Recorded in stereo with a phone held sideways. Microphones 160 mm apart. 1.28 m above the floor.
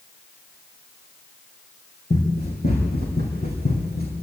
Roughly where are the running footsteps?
Left.